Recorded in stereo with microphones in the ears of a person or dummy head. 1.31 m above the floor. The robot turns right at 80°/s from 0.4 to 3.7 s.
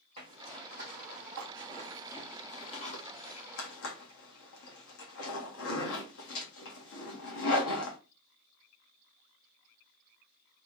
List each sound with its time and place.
0.2 s a zipper: 30° right (ahead or behind), 1.8 m; by 8.0 s 65° left (ahead or behind), 1.8 m